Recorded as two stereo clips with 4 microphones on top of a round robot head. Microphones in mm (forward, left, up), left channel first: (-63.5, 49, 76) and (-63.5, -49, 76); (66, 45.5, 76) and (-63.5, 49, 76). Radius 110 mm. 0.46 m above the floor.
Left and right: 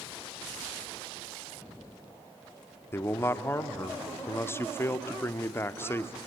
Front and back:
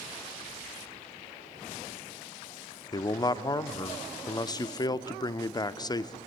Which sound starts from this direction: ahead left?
A man speaking, at 2.9 s.